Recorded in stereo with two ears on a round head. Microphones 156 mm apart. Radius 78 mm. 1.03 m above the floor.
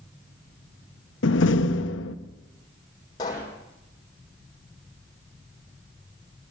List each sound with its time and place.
1.2 s a door slam: 80° left, 1.0 m
3.2 s a pop: 25° left (ahead or behind), 6 m